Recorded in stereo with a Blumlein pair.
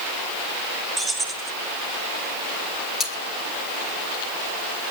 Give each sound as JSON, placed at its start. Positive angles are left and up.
{"t": 1.0, "sound": "keys jangling", "azimuth_deg": 0, "distance_m": 4.0}
{"t": 3.0, "sound": "cutlery clinking", "azimuth_deg": 25, "distance_m": 4.0}